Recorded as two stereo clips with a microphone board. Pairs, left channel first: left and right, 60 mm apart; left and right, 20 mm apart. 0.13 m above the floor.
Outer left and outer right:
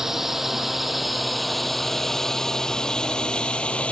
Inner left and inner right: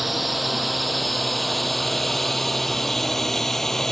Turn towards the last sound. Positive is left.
turn(degrees=20)  # may be behind; listen again after turning